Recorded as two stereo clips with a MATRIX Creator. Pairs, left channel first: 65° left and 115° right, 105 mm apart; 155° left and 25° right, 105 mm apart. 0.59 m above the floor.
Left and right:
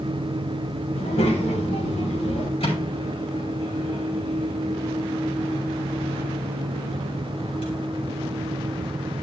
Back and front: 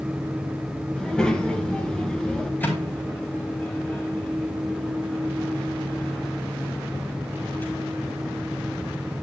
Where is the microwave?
85° left, 6 m.